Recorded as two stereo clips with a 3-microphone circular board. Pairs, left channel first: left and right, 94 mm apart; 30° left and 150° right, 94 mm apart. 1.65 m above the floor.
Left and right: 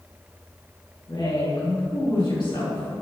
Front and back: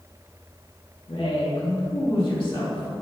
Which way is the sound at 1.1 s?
45° left.